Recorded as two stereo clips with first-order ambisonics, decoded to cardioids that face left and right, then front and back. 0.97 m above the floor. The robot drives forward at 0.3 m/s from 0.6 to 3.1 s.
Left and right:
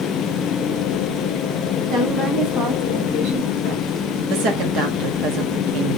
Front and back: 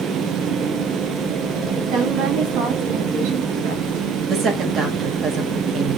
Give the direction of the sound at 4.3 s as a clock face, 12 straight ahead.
4 o'clock.